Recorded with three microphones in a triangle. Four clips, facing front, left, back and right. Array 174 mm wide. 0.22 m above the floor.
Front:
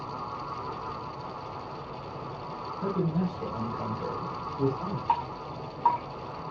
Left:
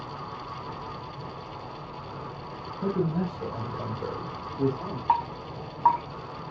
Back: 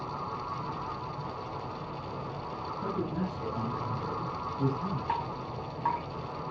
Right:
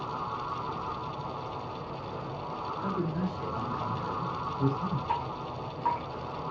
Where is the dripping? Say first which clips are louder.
Left 6 dB, front 4 dB; 65° left, 6 m.